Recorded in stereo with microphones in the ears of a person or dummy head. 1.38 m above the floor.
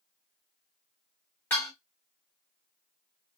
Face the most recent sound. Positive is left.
turn(degrees=0)  # may be behind; listen again after turning